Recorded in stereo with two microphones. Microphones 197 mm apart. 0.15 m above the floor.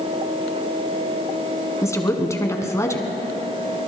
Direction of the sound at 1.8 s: 15° left (ahead or behind).